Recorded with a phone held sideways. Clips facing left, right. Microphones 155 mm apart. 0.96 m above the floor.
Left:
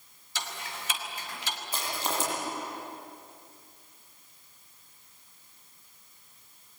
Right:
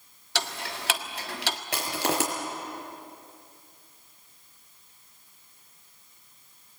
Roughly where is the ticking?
Right.